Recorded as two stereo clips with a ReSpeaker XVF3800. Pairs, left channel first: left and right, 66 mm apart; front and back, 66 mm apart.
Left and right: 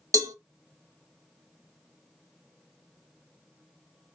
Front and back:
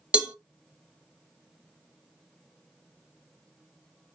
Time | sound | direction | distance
0.1 | a cowbell | 110° right | 0.6 m